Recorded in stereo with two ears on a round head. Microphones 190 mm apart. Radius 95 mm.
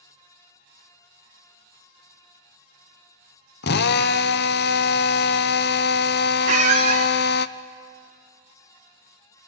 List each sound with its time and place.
3.6 s a drill: 50° left (ahead or behind), 0.7 m
6.5 s a squeak: 35° right (ahead or behind), 1.6 m